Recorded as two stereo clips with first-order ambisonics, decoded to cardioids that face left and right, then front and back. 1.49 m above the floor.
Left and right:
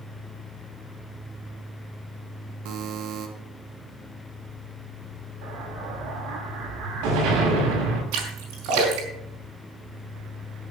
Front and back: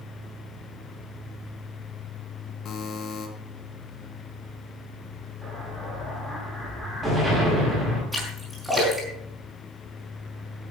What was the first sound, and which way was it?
A buzzer, 60° right.